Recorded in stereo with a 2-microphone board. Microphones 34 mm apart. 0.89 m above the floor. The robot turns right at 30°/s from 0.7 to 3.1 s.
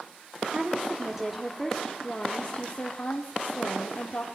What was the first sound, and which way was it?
A woman speaking, 25° right.